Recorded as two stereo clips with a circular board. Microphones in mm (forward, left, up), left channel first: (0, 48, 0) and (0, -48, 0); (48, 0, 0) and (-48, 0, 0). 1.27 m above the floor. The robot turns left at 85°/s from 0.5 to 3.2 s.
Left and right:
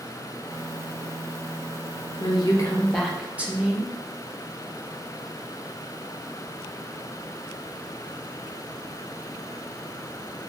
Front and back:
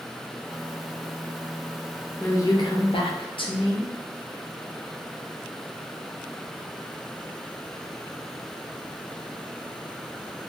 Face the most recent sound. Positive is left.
turn(degrees=-15)